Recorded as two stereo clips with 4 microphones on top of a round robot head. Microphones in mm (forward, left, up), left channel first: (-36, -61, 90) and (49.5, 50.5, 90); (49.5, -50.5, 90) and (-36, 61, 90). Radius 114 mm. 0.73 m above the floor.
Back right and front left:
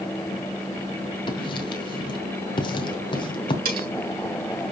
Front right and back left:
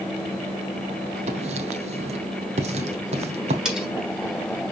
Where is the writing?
175° left, 1.3 m.